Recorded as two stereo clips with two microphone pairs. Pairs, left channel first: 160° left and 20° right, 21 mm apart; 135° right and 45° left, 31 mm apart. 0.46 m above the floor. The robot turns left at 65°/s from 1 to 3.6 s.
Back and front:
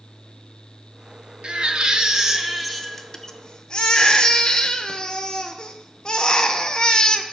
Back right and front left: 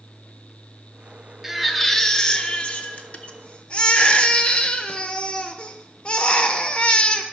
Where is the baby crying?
30° right, 0.7 m; by 7.2 s 170° right, 0.7 m.